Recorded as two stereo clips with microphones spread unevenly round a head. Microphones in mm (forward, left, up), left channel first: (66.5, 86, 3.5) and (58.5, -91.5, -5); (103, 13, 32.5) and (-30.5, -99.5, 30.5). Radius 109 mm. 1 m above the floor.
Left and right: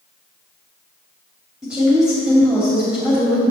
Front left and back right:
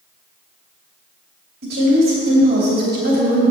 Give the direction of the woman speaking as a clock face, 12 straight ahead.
6 o'clock.